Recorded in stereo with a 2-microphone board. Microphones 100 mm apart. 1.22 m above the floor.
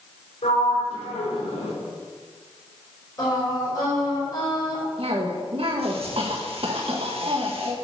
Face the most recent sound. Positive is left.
turn(degrees=-65)  # may be behind; listen again after turning